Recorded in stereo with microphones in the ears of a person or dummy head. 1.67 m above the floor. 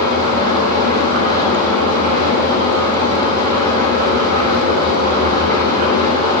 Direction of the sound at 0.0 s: 45° right (ahead or behind).